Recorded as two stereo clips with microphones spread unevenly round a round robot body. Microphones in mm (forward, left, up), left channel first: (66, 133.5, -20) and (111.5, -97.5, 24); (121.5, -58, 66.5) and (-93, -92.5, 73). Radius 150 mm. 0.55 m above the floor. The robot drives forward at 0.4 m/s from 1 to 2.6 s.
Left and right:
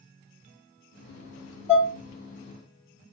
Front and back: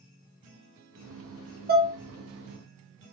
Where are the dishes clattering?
165° left, 0.5 m; by 1.9 s 170° left, 0.6 m.